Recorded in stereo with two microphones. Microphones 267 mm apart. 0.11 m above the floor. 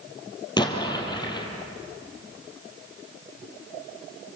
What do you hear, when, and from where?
0.6 s an explosion: 15° left (ahead or behind), 2.5 m